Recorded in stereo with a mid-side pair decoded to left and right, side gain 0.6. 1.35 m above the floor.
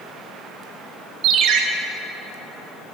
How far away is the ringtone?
About 1.1 m.